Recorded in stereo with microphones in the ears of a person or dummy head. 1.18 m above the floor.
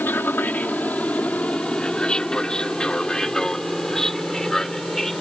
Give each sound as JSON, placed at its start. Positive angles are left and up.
{"t": 0.0, "sound": "an aircraft", "side_deg": 10}